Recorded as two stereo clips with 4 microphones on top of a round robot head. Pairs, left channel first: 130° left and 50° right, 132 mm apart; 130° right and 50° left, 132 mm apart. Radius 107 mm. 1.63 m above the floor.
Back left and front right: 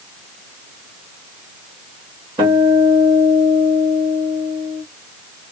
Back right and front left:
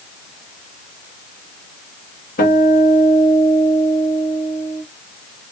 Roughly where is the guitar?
Right.